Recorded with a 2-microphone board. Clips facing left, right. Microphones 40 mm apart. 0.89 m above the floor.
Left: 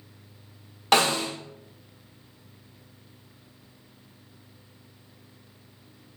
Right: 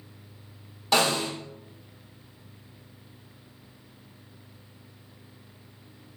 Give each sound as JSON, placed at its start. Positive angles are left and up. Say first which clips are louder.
{"t": 0.9, "sound": "a snare drum", "louder": "left 2 dB", "side_deg": 60, "distance_m": 1.4}